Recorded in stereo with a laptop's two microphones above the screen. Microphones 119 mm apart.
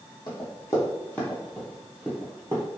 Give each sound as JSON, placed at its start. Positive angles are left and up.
{"t": 0.3, "sound": "running footsteps", "side_deg": 40, "distance_m": 1.3}